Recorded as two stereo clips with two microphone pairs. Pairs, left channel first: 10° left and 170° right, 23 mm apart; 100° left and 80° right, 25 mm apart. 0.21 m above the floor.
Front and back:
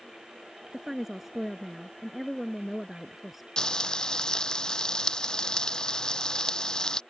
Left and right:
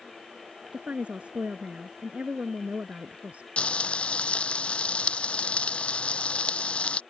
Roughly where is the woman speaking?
Right.